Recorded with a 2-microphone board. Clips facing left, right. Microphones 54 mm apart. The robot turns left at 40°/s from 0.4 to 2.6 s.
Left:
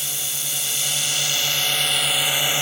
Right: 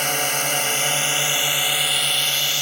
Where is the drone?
115° right; by 2.6 s 155° left.